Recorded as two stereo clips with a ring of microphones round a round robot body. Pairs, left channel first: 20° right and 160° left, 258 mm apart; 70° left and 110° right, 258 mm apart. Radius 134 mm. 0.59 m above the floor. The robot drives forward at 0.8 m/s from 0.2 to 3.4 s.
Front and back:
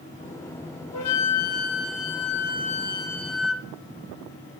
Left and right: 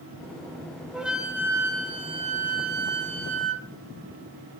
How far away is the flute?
About 2.0 m.